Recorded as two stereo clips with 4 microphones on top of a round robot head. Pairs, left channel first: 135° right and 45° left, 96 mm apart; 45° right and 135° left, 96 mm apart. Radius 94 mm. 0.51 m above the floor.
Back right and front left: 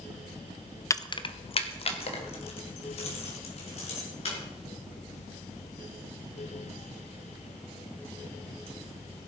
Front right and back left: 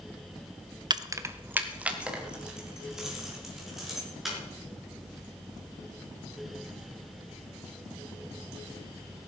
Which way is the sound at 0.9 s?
170° left.